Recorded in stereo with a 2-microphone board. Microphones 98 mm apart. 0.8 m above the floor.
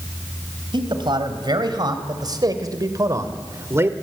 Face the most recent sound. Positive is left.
turn(degrees=-25)  # may be behind; listen again after turning